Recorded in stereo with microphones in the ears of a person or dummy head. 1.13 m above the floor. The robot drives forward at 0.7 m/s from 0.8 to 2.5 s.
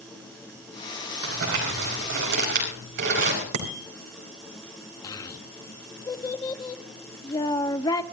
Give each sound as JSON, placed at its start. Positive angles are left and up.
{"t": 1.2, "sound": "crumpling", "side_deg": -70, "distance_m": 4.5}
{"t": 3.5, "sound": "a bicycle bell", "side_deg": -85, "distance_m": 3.0}
{"t": 5.0, "sound": "a child speaking", "side_deg": 20, "distance_m": 1.1}